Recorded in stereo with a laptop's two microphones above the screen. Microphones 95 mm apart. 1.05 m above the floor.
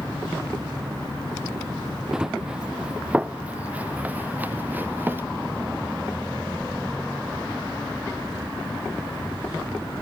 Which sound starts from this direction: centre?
Running footsteps, at 2.1 s.